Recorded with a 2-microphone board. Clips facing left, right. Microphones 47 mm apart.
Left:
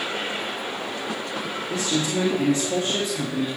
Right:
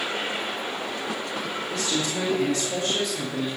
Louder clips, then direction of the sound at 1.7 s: Left 4 dB; 30° left (ahead or behind).